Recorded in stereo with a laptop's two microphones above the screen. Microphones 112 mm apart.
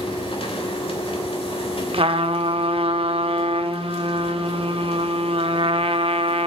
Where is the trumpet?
60° right (ahead or behind), 1.0 m.